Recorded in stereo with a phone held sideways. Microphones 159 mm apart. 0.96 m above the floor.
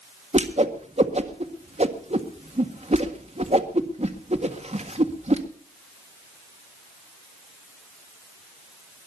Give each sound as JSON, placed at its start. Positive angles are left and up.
{"t": 0.3, "sound": "a whoosh", "side_deg": -45, "distance_m": 1.6}